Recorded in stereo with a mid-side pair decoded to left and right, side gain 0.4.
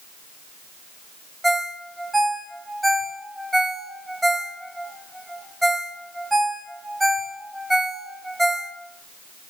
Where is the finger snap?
I don't hear a finger snap.